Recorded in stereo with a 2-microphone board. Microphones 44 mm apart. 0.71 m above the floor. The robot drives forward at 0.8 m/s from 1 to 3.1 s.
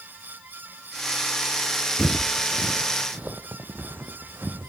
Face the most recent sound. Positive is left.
turn(degrees=-60)  # may be behind; listen again after turning